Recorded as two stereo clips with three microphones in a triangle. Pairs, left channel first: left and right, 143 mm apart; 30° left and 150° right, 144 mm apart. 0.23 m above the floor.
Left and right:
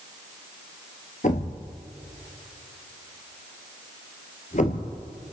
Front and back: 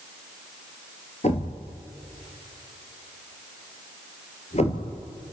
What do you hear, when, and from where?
1.2 s a thud: 65° left, 2 m